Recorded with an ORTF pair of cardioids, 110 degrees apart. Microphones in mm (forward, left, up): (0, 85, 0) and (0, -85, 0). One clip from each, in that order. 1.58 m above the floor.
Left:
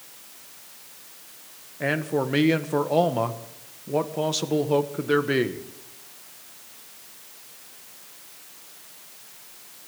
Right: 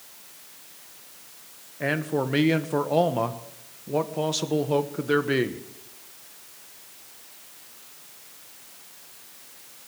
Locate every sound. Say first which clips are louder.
1.8 s a man speaking: left 1 dB; straight ahead, 1.2 m